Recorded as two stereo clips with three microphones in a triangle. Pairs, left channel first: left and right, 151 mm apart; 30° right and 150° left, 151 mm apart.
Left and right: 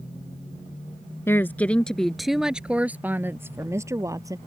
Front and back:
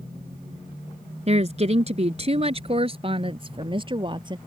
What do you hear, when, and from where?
1.3 s a woman speaking: 160° left; by 4.4 s 155° right